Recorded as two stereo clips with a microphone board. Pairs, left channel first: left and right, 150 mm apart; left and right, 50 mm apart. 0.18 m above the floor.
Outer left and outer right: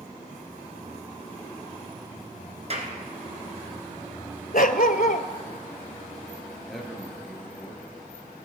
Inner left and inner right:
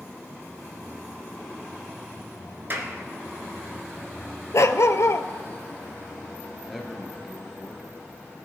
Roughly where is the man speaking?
Centre.